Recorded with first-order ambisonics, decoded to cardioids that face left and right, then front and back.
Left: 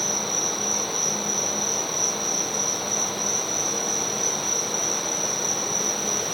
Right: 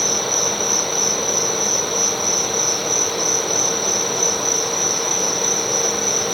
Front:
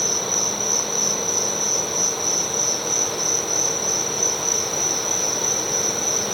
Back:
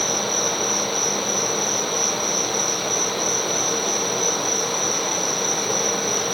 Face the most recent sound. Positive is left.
turn(degrees=-65)